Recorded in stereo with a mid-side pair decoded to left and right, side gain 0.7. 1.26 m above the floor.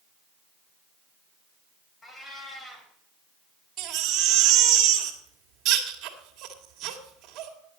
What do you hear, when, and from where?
2.0 s a cat meowing: 15° left, 3 m
3.8 s a baby crying: 50° right, 2.5 m